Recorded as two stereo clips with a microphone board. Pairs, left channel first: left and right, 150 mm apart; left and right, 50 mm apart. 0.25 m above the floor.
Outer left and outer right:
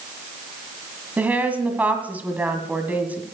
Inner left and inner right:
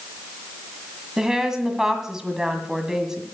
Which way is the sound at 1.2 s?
10° right (ahead or behind).